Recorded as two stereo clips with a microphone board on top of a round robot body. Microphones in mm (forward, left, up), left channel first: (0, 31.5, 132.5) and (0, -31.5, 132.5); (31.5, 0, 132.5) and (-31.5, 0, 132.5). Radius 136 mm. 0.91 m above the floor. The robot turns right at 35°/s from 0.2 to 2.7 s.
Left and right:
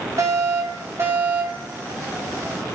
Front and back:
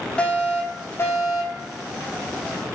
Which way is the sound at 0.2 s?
75° right.